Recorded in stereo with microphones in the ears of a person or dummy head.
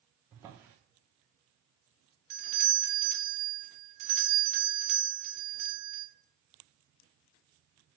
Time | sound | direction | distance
0.3 | a drawer | 15° right (ahead or behind) | 0.6 m
2.3 | a doorbell | 45° right (ahead or behind) | 0.7 m